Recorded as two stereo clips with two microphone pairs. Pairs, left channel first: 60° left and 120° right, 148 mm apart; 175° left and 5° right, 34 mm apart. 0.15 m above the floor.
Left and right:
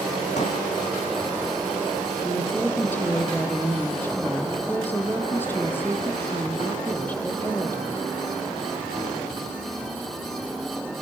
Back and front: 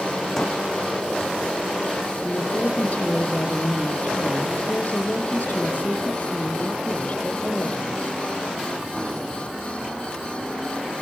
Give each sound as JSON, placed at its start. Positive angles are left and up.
{"t": 0.4, "sound": "a pop", "azimuth_deg": 100, "distance_m": 8.5}
{"t": 2.2, "sound": "a woman speaking", "azimuth_deg": 140, "distance_m": 4.5}